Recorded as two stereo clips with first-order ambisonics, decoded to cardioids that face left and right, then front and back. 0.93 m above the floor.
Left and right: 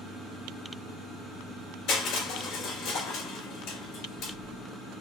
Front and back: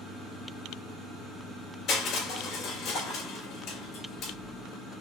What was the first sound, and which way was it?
Crushing, 50° left.